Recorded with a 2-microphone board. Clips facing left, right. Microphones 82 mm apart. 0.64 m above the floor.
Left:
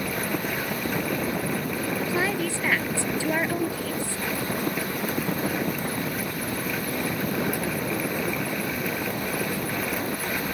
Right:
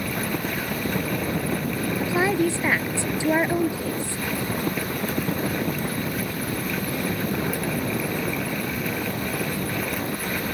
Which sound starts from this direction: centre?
A woman speaking, at 2.0 s.